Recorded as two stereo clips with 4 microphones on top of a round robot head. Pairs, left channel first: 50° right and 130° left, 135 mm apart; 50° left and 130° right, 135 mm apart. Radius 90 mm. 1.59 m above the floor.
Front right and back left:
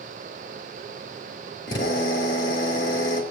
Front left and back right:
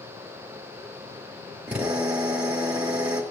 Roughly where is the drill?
Ahead right.